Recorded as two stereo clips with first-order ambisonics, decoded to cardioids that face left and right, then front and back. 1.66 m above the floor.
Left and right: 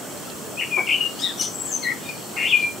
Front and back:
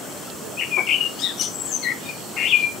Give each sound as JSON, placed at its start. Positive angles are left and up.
{"t": 0.6, "sound": "a bird", "azimuth_deg": 35, "distance_m": 0.6}